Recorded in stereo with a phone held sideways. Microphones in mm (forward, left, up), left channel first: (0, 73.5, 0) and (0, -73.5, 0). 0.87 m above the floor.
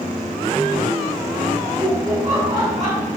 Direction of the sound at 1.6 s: 30° right (ahead or behind).